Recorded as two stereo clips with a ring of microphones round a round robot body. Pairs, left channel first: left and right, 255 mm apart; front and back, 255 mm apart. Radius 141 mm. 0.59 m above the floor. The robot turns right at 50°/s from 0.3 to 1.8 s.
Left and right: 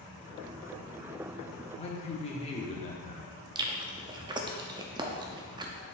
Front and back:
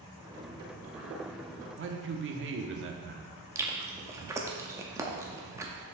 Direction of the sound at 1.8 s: 150° left.